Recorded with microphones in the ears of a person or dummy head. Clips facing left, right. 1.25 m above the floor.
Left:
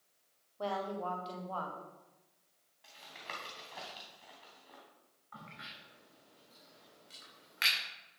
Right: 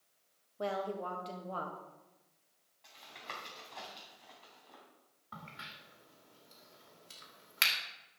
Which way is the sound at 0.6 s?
25° right (ahead or behind).